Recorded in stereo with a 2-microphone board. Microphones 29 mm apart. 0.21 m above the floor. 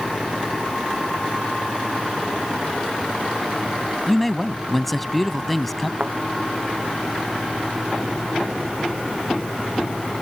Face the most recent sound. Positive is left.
turn(degrees=-45)  # may be behind; listen again after turning